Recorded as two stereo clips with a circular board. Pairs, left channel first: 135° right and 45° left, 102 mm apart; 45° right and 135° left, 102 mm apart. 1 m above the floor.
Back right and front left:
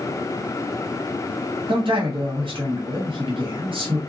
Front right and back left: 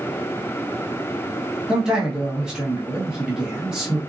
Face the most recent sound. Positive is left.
turn(degrees=55)